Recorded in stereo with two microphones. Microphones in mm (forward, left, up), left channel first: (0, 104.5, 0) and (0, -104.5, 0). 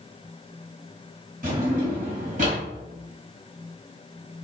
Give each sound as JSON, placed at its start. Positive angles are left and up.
{"t": 1.4, "sound": "a drawer", "side_deg": -40, "distance_m": 1.7}